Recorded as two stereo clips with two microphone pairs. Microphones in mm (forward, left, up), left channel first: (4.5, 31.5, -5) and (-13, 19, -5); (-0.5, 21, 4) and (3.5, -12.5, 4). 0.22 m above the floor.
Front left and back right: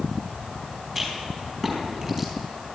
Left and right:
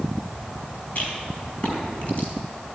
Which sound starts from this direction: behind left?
A rattle, at 0.9 s.